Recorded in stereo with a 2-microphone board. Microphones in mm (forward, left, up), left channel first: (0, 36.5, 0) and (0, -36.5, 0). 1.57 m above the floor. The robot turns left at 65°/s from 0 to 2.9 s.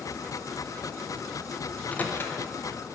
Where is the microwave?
10° left (ahead or behind), 0.7 m; by 2.4 s 35° left (ahead or behind), 0.7 m.